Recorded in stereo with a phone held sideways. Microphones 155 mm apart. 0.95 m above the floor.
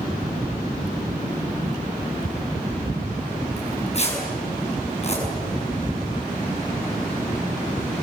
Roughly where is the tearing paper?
Left.